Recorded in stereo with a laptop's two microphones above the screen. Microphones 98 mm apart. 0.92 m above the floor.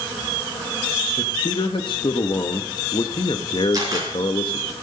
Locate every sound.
1.2 s a man speaking: 60° left (ahead or behind), 0.8 m
3.7 s a camera shutter: 40° right (ahead or behind), 4 m